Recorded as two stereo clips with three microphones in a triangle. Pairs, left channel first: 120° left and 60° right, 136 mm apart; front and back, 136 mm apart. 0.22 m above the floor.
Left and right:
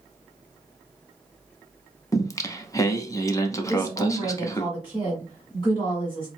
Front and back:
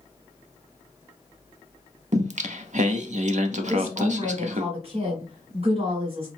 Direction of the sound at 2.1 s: Straight behind.